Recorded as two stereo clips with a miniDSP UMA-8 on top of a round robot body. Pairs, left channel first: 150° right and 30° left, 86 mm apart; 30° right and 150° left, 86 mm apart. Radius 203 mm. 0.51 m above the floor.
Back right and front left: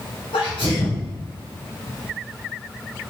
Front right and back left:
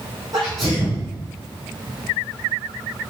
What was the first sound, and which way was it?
A sneeze, 170° right.